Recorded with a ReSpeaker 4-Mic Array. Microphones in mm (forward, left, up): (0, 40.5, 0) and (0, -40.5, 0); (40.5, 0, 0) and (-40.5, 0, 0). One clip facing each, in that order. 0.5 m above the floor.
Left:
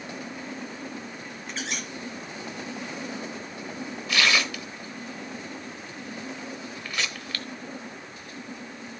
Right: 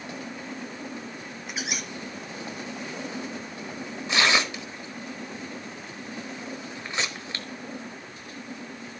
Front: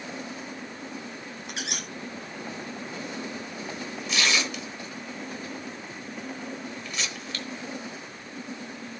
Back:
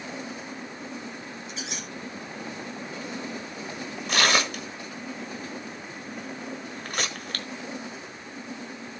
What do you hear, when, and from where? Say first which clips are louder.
1.5 s a squeak: even, front 4 dB; 10° right, 1.2 m
4.1 s tearing paper: right 1 dB, back 4 dB; 150° right, 1.2 m